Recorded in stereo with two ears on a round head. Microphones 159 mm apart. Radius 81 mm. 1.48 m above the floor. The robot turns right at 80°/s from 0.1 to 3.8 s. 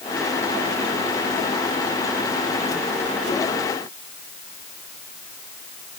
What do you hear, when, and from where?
Only background noise.